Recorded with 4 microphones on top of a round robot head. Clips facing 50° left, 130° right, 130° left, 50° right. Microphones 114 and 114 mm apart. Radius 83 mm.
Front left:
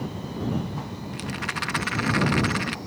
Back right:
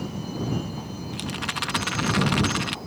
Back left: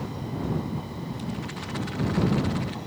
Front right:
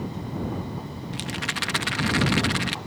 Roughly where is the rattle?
Ahead right.